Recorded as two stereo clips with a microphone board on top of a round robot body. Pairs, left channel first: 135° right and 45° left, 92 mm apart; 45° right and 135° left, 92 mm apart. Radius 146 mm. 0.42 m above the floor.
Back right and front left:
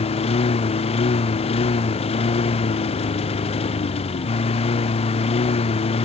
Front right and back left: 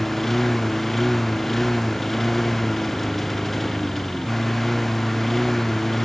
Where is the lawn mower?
135° right.